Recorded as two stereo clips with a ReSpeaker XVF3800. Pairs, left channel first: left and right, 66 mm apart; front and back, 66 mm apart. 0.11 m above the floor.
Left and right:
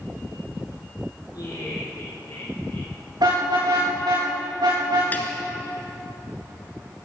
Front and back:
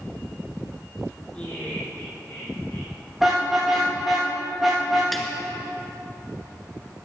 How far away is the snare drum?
About 1.6 m.